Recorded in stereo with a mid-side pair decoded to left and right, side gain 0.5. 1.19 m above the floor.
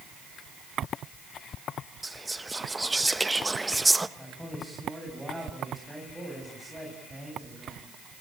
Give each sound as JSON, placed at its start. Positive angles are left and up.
{"t": 2.0, "sound": "whispering", "azimuth_deg": -10, "distance_m": 1.4}
{"t": 4.2, "sound": "a man speaking", "azimuth_deg": 0, "distance_m": 8.5}